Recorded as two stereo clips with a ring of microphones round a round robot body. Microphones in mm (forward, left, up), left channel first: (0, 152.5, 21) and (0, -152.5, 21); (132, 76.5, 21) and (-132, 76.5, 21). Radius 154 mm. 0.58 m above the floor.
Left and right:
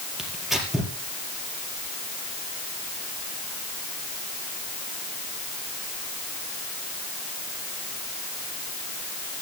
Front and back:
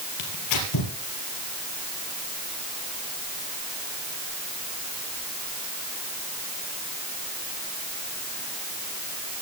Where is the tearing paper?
Straight ahead, 4.5 m.